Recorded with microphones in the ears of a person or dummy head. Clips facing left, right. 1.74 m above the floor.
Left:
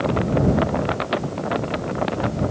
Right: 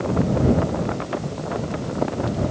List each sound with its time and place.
Only background noise.